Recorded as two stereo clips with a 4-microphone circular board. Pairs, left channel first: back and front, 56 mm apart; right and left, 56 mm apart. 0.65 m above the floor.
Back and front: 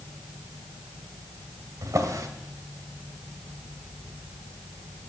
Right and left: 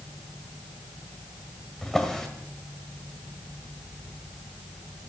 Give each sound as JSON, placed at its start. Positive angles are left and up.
{"t": 1.8, "sound": "a drawer", "azimuth_deg": -10, "distance_m": 1.8}